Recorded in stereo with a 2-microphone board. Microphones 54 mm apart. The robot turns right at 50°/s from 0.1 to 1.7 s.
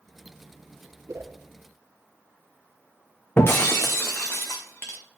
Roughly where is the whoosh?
Right.